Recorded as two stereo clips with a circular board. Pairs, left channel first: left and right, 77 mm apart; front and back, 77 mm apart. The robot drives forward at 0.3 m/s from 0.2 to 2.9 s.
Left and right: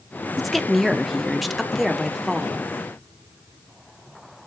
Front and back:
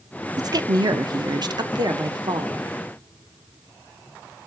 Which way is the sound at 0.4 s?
Straight behind.